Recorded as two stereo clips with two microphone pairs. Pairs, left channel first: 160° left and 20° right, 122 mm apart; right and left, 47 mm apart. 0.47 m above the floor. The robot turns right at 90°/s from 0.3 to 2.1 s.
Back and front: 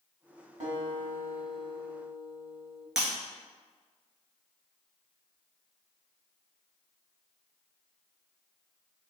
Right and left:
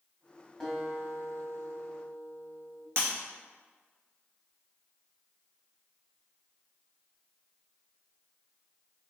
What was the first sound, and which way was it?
A guitar, 15° right.